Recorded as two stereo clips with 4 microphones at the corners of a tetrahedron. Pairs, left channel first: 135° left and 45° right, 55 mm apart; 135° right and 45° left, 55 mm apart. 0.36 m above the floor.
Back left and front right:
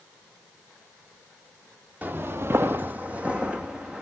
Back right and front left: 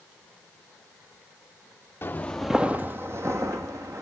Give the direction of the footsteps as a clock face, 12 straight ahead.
3 o'clock.